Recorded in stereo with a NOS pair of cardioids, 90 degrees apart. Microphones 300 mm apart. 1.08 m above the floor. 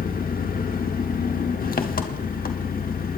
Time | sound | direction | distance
0.0 | an engine running | 30° left | 1.4 m